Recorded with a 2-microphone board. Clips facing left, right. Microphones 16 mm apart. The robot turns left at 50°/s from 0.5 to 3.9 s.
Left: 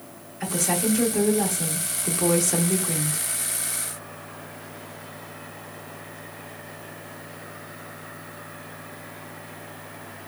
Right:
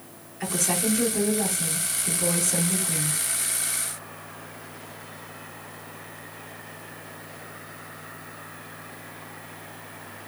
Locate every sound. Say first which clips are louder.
0.4 s a woman speaking: left 1 dB; straight behind, 1.2 m; by 3.2 s 45° left, 1.2 m